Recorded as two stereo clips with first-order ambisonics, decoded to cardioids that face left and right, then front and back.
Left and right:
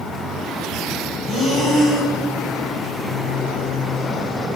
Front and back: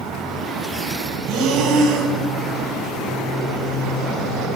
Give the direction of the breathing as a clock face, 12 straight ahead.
5 o'clock.